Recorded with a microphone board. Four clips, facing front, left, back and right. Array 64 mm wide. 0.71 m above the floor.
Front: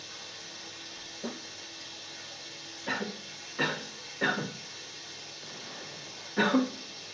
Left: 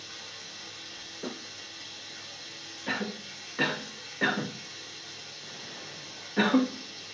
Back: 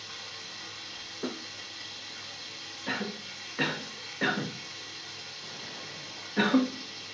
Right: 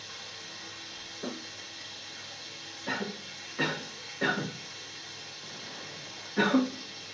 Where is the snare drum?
175° right, 4 m.